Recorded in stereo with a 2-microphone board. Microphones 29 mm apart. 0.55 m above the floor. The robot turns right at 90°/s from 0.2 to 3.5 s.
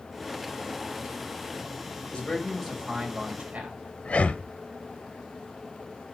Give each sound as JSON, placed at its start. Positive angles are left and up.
{"t": 2.1, "sound": "a man speaking", "azimuth_deg": 135, "distance_m": 3.0}
{"t": 4.0, "sound": "breathing", "side_deg": 55, "distance_m": 0.5}